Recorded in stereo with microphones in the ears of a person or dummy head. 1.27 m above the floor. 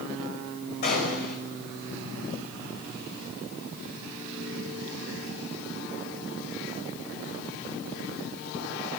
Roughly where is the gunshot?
Left.